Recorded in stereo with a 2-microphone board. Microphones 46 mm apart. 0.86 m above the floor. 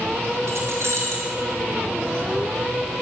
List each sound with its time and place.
0.5 s keys jangling: 70° right (ahead or behind), 3.5 m